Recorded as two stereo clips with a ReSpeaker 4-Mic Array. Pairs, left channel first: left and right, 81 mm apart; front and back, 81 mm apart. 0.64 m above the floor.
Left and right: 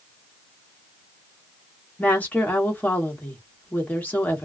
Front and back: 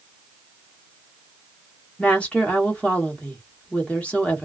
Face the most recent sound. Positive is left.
turn(degrees=50)